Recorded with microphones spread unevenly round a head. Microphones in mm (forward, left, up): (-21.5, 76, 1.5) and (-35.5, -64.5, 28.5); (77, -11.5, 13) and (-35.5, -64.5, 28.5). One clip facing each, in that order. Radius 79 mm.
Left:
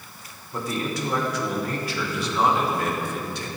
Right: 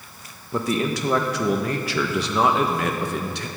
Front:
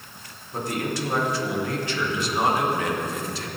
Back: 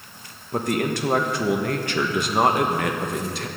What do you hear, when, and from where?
0.5 s a man speaking: 120° right, 1.5 m